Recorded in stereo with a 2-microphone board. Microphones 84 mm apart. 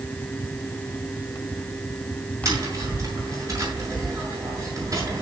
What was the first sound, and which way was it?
Tapping, 40° right (ahead or behind).